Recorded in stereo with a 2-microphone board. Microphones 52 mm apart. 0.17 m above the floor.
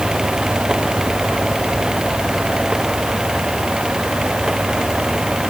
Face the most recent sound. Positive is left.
No sound to turn to.